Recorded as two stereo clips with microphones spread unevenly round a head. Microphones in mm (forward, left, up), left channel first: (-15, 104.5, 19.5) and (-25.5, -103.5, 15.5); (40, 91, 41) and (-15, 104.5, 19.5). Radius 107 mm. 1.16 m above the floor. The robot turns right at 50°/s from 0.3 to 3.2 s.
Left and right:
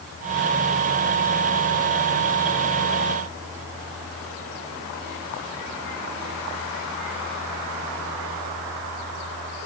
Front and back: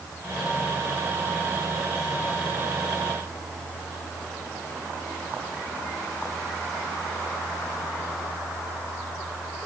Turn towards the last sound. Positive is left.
No sound to turn to.